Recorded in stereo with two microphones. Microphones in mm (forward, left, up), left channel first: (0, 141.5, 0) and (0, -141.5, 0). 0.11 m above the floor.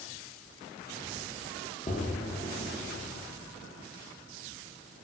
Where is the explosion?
25° left (ahead or behind), 2.5 m.